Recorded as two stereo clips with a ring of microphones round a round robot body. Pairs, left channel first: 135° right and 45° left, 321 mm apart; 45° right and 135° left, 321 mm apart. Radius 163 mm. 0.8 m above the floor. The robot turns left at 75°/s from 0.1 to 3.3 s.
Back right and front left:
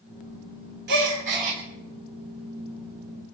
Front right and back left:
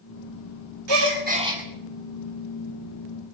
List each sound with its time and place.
0.9 s a gasp: 105° left, 2.5 m; by 1.6 s 45° left, 2.5 m